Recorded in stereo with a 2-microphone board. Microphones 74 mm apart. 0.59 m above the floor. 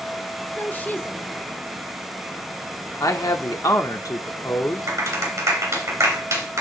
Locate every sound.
0.6 s a woman speaking: 25° left (ahead or behind), 1.5 m
3.0 s a man speaking: 50° left (ahead or behind), 1.2 m
4.9 s a clap: 40° right (ahead or behind), 2.5 m